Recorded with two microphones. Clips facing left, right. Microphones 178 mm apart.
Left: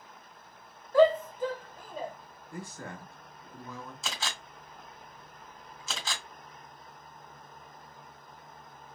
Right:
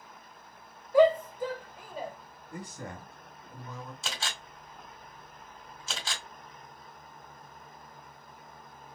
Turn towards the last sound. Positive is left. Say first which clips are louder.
# left 2 dB
turn(degrees=0)  # may be behind; listen again after turning